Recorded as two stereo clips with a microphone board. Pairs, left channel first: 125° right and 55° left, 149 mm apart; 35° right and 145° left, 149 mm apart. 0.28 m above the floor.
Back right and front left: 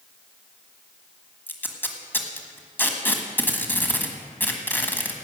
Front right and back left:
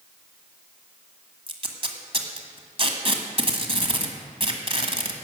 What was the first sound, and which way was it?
Tape being pulled, 165° left.